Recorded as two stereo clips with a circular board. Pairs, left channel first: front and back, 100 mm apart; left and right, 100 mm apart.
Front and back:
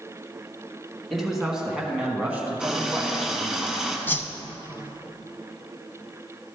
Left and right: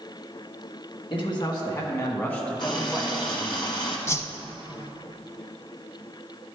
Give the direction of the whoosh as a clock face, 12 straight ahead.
10 o'clock.